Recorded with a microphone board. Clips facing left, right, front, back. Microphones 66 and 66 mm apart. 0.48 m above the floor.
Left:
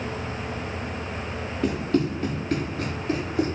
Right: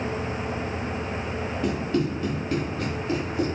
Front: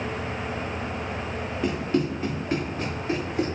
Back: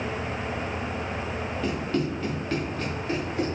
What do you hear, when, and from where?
1.6 s running footsteps: 70° left, 2.5 m